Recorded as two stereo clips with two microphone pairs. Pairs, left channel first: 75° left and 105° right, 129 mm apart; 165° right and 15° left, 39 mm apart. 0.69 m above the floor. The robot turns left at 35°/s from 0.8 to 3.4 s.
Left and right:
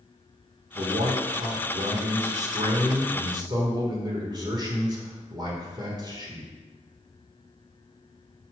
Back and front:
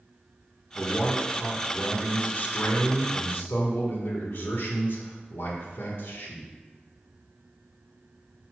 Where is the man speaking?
70° right, 1.6 m; by 6.5 s 160° right, 1.6 m.